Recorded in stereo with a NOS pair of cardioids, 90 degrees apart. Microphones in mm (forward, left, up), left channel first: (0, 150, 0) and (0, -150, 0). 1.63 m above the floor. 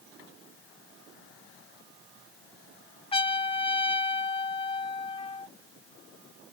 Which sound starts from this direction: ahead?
A trumpet, at 3.1 s.